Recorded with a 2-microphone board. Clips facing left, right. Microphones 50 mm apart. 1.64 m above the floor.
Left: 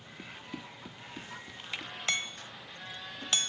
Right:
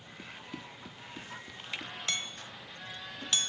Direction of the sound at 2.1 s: 30° left (ahead or behind).